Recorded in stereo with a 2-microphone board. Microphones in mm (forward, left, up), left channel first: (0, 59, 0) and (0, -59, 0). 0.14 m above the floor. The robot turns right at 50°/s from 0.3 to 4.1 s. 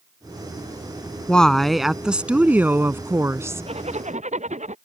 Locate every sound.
1.3 s a woman speaking: 10° left (ahead or behind); by 3.6 s 25° right (ahead or behind)
3.7 s a zipper: 60° right (ahead or behind); by 4.8 s 80° right